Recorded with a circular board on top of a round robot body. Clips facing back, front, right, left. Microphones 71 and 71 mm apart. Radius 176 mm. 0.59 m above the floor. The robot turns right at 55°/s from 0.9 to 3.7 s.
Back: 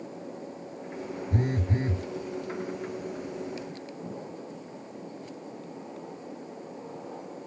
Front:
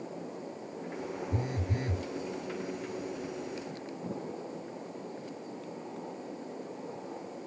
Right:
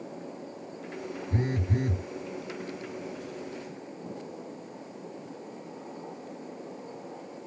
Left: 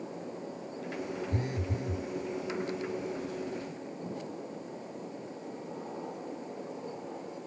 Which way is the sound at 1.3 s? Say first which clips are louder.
Back 9 dB, right 4 dB; 150° right.